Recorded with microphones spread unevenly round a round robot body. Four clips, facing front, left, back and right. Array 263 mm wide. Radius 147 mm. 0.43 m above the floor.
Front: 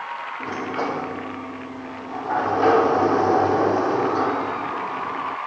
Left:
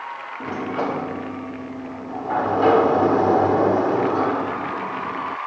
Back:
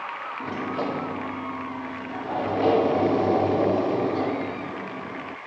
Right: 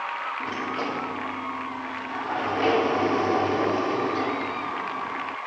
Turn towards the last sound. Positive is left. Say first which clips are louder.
# left 9 dB, front 2 dB
turn(degrees=60)